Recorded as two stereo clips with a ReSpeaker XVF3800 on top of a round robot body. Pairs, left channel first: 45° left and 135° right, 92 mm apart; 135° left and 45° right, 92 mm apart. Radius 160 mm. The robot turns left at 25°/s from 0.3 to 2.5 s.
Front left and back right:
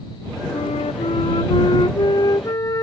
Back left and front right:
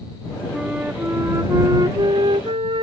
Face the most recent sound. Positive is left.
turn(degrees=-15)